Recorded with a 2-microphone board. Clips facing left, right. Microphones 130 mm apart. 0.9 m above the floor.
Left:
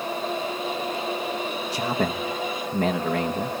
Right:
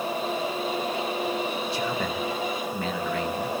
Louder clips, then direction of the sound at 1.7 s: Left 2 dB; 45° left (ahead or behind).